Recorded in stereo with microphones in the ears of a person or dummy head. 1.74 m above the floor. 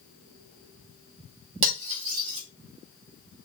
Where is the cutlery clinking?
35° right (ahead or behind), 1.8 m.